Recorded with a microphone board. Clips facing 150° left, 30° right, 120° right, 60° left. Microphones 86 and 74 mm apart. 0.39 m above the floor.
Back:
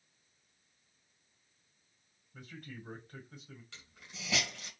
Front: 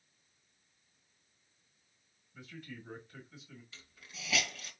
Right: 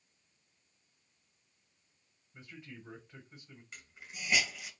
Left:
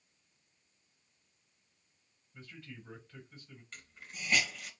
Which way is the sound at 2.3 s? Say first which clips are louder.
Even, even; 170° left.